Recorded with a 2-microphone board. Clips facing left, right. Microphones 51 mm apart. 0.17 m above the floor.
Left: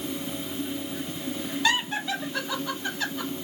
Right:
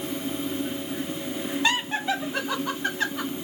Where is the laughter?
25° right (ahead or behind), 1.7 m; by 3.4 s 45° right (ahead or behind), 2 m.